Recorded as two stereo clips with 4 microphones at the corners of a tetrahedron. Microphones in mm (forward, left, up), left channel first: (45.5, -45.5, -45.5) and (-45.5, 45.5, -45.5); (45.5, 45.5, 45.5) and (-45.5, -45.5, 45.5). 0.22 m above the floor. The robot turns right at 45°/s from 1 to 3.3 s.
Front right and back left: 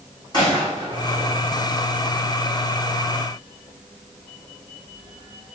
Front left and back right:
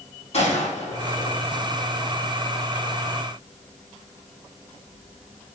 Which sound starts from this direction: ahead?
A gunshot, at 0.3 s.